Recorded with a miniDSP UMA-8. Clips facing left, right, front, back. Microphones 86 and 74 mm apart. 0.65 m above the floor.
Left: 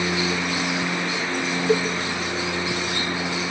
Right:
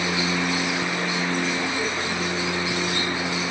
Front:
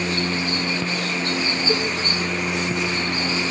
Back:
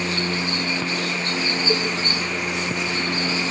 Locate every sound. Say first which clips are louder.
1.7 s a cowbell: left 6 dB, even; 80° left, 3.5 m